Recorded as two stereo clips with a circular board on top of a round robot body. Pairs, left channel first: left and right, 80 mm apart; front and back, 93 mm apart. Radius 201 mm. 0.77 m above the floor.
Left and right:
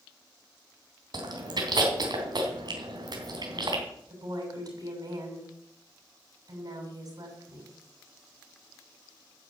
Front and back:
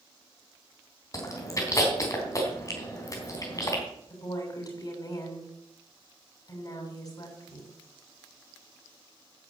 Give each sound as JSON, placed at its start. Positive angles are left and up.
{"t": 1.1, "sound": "chewing", "azimuth_deg": -55, "distance_m": 3.5}
{"t": 4.1, "sound": "a woman speaking", "azimuth_deg": -50, "distance_m": 7.0}